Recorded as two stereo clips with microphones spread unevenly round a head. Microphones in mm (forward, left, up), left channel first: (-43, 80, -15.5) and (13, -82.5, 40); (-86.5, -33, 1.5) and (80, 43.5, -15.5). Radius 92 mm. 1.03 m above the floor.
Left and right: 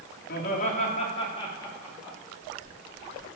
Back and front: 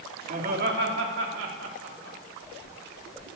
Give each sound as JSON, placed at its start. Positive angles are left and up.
{"t": 0.3, "sound": "laughter", "azimuth_deg": 70, "distance_m": 2.0}